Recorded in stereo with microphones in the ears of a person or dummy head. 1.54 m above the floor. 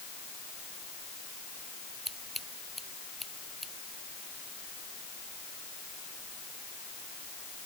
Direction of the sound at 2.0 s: Centre (ahead or behind).